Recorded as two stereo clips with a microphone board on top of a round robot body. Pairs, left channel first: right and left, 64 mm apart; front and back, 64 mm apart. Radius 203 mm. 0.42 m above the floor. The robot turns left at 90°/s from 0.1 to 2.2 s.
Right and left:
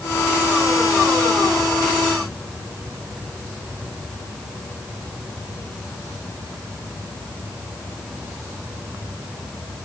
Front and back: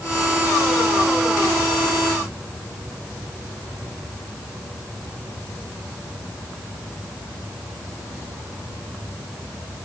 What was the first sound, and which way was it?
Only background noise.